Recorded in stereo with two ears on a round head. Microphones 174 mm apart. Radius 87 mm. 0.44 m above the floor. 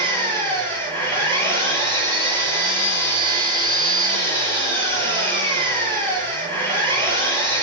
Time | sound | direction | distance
0.0 | an engine running | 15° left (ahead or behind) | 7 m